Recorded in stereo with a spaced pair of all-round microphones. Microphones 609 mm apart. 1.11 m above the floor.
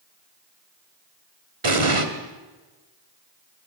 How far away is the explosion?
About 1.9 m.